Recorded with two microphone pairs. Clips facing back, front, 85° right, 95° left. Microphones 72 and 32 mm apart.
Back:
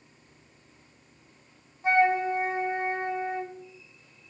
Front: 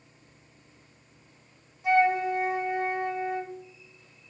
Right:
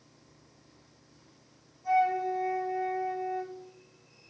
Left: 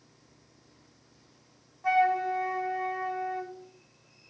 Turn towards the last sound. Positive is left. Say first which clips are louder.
# even, left 2 dB
turn(degrees=120)